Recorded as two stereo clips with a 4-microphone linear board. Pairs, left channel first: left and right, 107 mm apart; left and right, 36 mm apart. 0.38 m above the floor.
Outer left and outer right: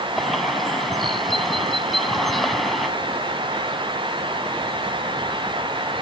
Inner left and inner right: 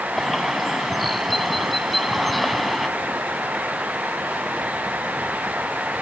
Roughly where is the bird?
Centre.